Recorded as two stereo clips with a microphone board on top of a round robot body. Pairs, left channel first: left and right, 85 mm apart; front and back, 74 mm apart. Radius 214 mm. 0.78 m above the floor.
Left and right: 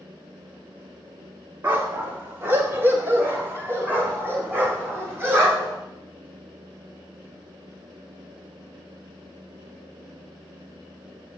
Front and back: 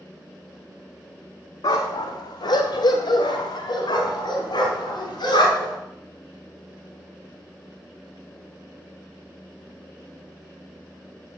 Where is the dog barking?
25° right, 0.5 m.